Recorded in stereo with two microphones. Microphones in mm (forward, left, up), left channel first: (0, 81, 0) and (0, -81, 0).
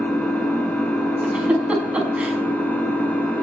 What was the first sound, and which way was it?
An engine running, 10° left (ahead or behind).